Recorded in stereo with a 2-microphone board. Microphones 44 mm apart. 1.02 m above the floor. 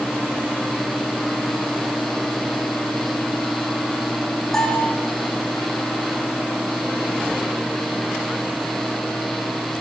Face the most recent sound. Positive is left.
turn(degrees=10)  # may be behind; listen again after turning